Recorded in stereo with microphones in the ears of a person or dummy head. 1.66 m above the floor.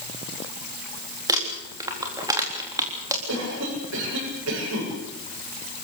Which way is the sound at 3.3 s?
85° right.